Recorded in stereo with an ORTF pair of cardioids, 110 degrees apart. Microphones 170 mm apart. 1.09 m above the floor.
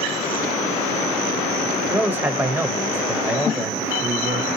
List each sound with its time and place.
1.9 s a man speaking: 10° right, 0.8 m